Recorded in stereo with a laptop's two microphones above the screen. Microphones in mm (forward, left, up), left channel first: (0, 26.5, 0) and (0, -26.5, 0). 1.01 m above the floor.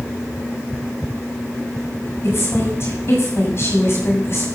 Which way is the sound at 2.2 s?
50° left (ahead or behind).